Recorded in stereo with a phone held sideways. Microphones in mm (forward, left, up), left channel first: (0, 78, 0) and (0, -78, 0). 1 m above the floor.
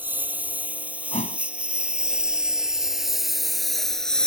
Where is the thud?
50° left (ahead or behind).